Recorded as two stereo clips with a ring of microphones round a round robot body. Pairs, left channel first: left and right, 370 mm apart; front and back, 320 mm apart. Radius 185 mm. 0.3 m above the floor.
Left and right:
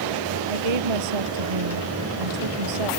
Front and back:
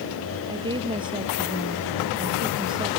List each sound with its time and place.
0.5 s a woman speaking: 100° right